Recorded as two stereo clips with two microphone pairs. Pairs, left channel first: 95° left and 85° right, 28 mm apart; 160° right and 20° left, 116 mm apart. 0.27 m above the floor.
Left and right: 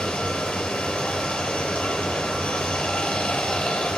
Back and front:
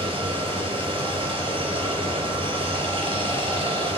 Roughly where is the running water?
Ahead left.